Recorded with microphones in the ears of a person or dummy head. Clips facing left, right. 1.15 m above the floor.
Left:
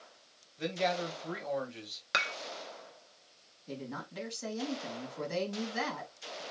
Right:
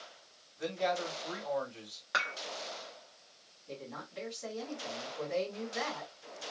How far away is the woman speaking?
About 2.5 m.